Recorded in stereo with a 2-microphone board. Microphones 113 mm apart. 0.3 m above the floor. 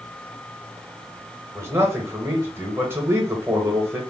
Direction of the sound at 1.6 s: 20° right (ahead or behind).